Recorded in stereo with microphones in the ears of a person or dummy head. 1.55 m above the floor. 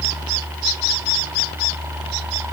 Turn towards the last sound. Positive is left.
No sound to turn to.